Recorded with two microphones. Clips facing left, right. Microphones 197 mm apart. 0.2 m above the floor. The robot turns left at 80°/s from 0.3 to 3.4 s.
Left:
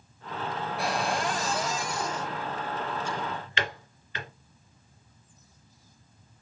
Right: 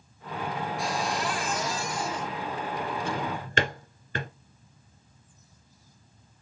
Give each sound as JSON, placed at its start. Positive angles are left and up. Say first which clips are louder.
{"t": 0.8, "sound": "a cupboard door", "louder": "left 3 dB", "azimuth_deg": 100, "distance_m": 3.0}
{"t": 3.0, "sound": "a drawer", "louder": "right 3 dB", "side_deg": -65, "distance_m": 1.4}